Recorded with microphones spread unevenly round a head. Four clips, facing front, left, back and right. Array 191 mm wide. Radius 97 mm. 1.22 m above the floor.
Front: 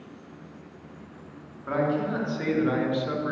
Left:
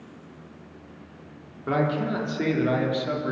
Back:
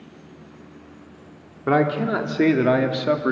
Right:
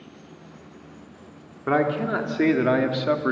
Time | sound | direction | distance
1.7 | a man speaking | 165° right | 4 m